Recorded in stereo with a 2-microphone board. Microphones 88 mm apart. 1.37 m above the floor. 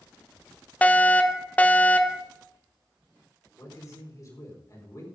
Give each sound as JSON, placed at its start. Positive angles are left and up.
{"t": 0.8, "sound": "a fire alarm", "side_deg": 20, "distance_m": 0.9}
{"t": 3.6, "sound": "a man speaking", "side_deg": 40, "distance_m": 4.5}